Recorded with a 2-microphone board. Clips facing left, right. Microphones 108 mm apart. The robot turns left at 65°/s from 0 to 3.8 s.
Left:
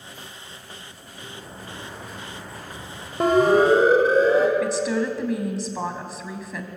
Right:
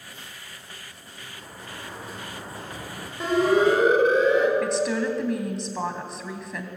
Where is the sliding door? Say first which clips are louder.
Left 3 dB; 55° left, 5 m; by 3.1 s 70° right, 5 m.